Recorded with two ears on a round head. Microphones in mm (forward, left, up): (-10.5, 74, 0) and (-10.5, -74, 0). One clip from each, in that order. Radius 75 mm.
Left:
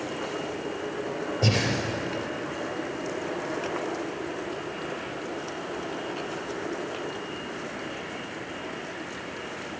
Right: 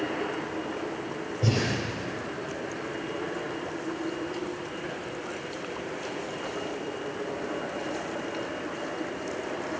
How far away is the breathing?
About 3.5 m.